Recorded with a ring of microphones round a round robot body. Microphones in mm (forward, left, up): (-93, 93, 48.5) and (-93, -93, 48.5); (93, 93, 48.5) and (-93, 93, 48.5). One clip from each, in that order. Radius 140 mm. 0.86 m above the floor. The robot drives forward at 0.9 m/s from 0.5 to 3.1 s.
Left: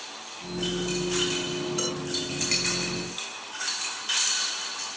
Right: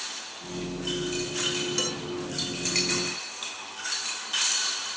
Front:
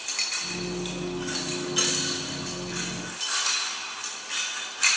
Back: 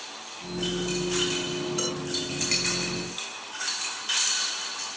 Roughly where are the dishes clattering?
Ahead right.